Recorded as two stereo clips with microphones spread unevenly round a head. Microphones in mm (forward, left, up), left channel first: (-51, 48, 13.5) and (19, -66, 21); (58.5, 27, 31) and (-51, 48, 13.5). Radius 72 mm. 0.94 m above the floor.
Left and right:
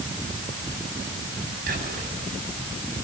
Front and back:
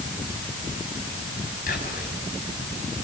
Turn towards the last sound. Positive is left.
turn(degrees=-25)